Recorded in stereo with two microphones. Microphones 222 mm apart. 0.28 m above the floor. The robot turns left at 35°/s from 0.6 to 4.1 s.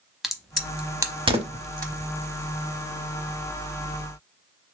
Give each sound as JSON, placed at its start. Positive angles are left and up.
{"t": 0.2, "sound": "a crack", "side_deg": 0, "distance_m": 0.6}